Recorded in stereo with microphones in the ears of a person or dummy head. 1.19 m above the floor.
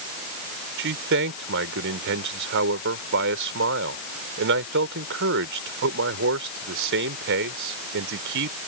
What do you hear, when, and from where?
0.8 s a man speaking: 65° right (ahead or behind)